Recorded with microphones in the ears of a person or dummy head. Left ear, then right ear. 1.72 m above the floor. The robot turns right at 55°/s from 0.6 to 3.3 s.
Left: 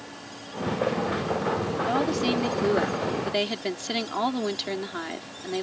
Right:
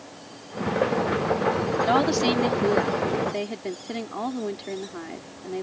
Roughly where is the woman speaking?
Ahead right.